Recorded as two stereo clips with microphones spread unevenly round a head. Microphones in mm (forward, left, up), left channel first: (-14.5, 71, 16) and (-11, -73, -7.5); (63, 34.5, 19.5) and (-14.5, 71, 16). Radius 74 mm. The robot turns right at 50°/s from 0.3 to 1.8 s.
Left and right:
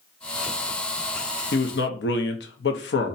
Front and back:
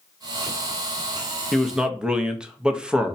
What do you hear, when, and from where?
1.5 s a man speaking: 60° left, 0.7 m; by 3.2 s 75° left, 0.7 m